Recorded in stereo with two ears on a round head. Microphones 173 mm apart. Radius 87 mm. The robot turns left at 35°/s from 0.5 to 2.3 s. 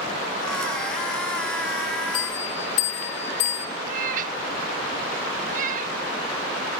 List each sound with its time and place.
2.1 s a bell: 65° left (ahead or behind), 3 m; by 3.7 s 60° left (ahead or behind), 3 m
3.9 s a cat meowing: 45° right (ahead or behind), 0.7 m